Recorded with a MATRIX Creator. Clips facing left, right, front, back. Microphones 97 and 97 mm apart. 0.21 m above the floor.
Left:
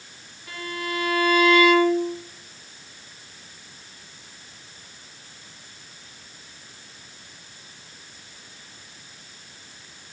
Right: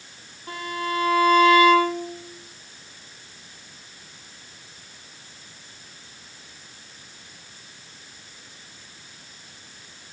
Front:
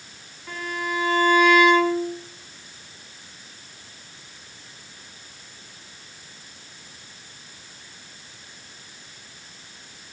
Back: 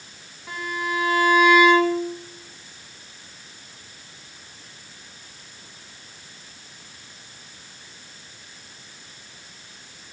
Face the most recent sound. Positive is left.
turn(degrees=-105)